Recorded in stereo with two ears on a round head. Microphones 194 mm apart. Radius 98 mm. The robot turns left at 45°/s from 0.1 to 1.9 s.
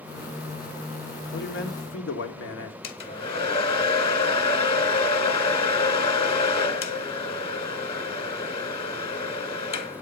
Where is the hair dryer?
25° left (ahead or behind), 1.9 m.